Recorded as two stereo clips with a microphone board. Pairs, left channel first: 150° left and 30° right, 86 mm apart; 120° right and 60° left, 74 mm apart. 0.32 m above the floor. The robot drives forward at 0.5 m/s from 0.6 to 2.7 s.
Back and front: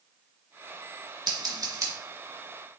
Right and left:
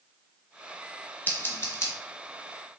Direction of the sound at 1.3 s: 60° right.